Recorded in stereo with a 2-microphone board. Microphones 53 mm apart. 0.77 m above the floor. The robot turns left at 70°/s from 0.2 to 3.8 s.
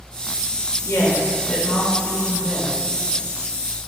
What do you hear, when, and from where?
0.9 s a woman speaking: 65° left, 2.5 m; by 2.8 s 70° right, 2.5 m